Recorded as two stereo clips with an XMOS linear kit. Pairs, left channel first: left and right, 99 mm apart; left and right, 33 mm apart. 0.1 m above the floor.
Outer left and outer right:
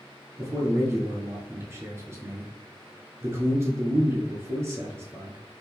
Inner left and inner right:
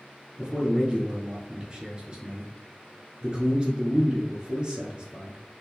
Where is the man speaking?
25° right (ahead or behind), 1.5 m.